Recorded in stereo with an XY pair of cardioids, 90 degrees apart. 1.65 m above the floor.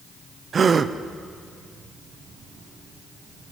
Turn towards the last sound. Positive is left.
turn(degrees=-40)